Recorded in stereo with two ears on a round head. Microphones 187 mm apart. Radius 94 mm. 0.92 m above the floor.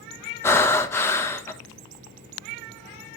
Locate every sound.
0.4 s breathing: 10° left (ahead or behind), 1.0 m